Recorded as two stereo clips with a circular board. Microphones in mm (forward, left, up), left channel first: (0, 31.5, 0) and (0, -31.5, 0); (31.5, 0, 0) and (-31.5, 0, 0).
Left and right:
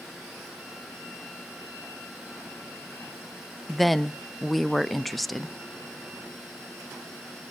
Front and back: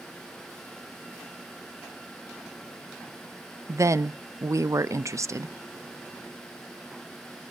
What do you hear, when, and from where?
3.7 s a woman speaking: straight behind, 0.6 m